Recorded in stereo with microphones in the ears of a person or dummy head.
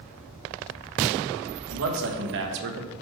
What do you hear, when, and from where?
1.7 s a man speaking: 80° right, 1.5 m; by 2.9 s 55° right (ahead or behind), 0.9 m